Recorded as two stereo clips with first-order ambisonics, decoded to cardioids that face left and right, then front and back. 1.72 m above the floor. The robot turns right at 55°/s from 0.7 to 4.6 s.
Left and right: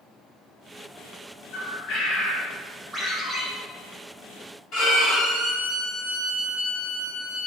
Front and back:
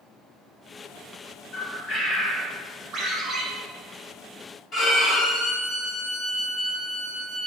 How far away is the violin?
About 1.6 m.